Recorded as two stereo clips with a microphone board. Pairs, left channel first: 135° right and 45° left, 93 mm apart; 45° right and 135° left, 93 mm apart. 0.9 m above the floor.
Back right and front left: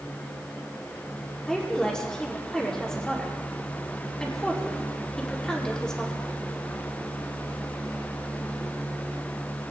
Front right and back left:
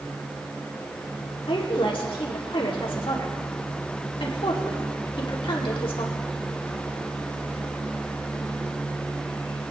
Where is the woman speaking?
55° right, 2.0 m.